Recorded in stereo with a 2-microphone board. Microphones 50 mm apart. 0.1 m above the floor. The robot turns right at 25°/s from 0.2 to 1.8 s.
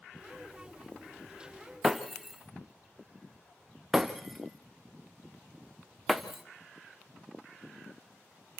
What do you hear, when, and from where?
1.8 s breaking glass: 5° right (ahead or behind), 1.7 m